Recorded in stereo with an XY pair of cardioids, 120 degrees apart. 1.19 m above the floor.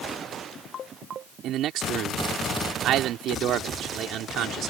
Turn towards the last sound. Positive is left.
turn(degrees=-70)